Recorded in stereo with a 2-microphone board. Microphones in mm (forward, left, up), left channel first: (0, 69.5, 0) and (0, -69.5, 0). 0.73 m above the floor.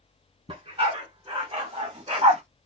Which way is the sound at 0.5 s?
45° right (ahead or behind).